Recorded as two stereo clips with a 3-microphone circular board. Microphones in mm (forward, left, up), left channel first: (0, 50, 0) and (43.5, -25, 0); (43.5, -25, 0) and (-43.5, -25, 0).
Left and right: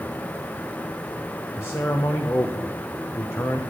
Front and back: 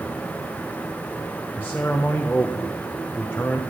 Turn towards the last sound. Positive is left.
turn(degrees=65)